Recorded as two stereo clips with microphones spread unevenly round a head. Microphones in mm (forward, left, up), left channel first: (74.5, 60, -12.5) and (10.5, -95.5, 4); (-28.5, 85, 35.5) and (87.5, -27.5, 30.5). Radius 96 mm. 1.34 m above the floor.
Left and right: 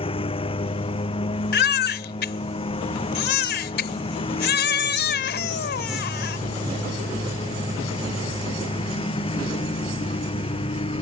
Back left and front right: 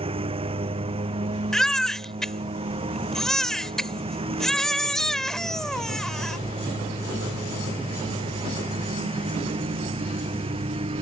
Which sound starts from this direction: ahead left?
A baby crying, at 1.5 s.